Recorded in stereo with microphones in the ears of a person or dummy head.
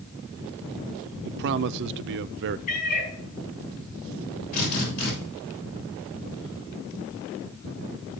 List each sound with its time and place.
1.2 s a man speaking: 60° right (ahead or behind), 0.5 m
2.7 s a cat meowing: 45° left (ahead or behind), 5.5 m
4.5 s a drill: 55° left (ahead or behind), 7 m